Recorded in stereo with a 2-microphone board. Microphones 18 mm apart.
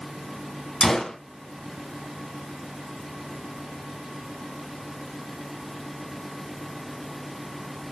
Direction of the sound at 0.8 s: 35° left (ahead or behind).